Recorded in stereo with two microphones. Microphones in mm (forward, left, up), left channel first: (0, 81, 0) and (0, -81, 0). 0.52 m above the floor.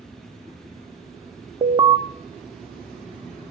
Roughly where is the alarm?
Right.